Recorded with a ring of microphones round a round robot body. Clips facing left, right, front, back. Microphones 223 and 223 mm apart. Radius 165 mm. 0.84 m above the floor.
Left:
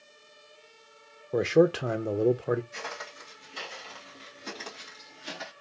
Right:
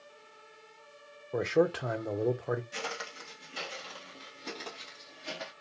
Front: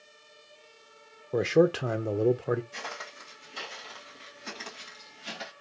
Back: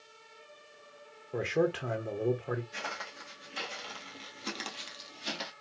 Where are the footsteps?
80° right, 0.9 m; by 5.5 s 165° left, 1.4 m.